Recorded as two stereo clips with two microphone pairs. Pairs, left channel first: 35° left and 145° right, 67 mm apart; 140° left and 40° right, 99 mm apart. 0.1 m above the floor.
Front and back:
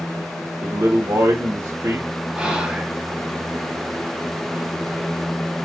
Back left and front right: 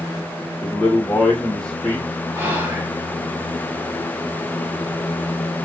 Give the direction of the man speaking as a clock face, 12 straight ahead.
5 o'clock.